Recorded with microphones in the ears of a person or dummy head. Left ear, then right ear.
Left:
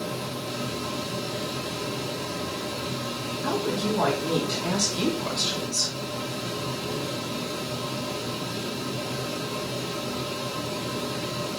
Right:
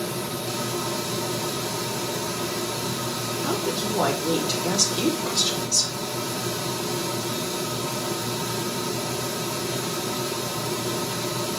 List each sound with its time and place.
0.0 s a fan: 65° right (ahead or behind), 1.4 m
3.4 s a woman speaking: 65° right (ahead or behind), 3.5 m